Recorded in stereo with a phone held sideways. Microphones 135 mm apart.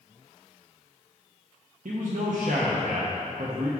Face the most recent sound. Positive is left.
turn(degrees=-75)  # may be behind; listen again after turning